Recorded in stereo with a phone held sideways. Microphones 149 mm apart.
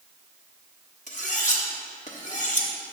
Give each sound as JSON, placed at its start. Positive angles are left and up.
{"t": 1.1, "sound": "cutlery clinking", "side_deg": 55, "distance_m": 1.3}